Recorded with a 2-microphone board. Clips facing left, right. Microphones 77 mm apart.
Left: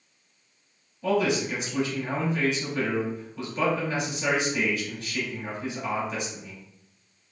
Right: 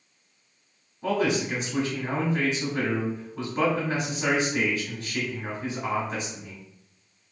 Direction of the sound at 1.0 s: 30° right (ahead or behind).